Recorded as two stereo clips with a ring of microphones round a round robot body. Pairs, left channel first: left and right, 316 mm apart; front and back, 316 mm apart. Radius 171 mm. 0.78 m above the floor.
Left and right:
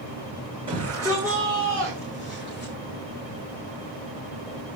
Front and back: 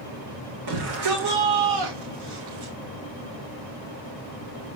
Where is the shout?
165° right, 4 m; by 2.7 s 160° left, 2.5 m.